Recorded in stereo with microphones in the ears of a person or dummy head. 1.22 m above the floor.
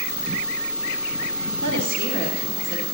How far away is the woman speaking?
About 1.5 m.